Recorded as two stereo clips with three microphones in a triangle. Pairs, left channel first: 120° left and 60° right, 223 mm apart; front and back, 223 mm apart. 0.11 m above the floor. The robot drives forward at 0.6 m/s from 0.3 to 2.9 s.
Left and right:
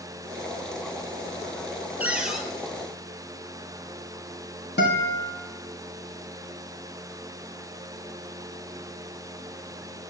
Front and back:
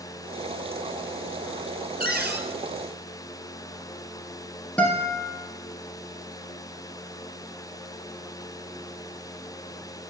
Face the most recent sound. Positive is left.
turn(degrees=85)